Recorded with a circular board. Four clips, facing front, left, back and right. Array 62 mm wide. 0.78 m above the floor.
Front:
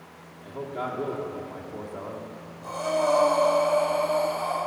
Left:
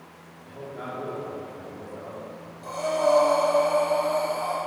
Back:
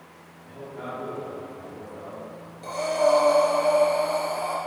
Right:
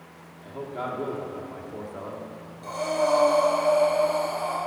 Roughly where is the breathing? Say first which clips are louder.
Left 1 dB, back 2 dB; behind.